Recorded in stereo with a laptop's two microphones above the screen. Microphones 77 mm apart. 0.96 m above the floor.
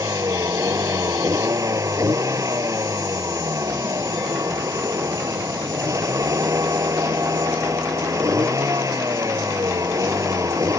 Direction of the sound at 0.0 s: 45° right (ahead or behind).